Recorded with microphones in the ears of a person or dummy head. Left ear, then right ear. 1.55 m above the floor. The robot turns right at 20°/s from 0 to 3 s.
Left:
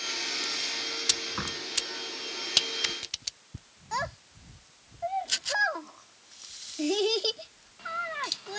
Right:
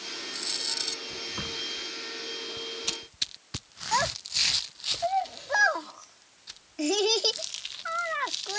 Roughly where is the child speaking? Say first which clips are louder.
Right 7 dB; right.